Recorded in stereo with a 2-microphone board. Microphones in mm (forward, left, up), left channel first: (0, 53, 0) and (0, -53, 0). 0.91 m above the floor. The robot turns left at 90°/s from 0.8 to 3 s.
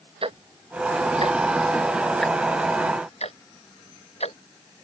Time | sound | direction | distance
0.2 | ticking | 60° right (ahead or behind) | ?